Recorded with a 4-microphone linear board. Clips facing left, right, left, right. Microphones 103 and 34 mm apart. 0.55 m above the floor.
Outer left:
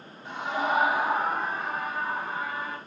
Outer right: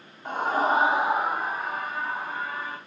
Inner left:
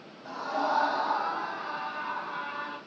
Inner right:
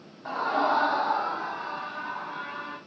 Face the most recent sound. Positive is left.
turn(degrees=5)  # may be behind; listen again after turning